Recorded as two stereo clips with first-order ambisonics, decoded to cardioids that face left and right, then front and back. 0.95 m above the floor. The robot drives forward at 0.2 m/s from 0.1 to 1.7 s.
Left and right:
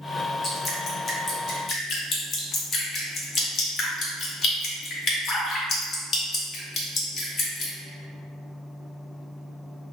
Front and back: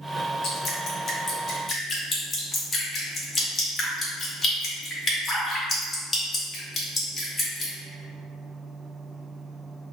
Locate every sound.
0.4 s dripping: 40° left, 0.7 m; by 7.7 s 65° left, 0.6 m